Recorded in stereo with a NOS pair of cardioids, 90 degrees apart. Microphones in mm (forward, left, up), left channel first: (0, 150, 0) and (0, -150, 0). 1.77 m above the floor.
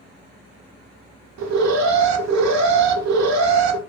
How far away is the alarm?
About 0.8 m.